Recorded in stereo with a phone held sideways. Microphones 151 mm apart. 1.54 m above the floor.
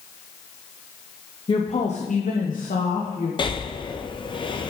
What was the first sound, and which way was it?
A woman speaking, 30° left (ahead or behind).